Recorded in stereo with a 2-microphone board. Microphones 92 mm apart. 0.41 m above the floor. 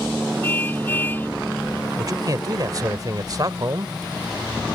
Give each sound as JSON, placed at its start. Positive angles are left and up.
{"t": 0.4, "sound": "a car horn", "side_deg": 20}
{"t": 2.0, "sound": "a man speaking", "side_deg": -45}